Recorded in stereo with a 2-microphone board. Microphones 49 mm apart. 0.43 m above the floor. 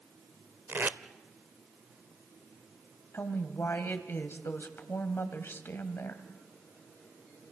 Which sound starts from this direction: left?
A woman speaking, at 3.1 s.